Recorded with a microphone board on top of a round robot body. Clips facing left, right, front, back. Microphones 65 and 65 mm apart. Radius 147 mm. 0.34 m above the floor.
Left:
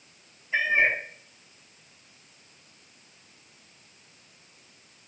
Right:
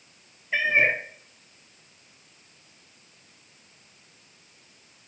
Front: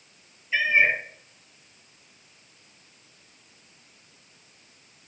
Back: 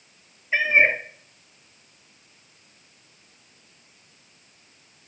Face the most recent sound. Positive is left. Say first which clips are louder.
# right 1 dB, back 2 dB
turn(degrees=-125)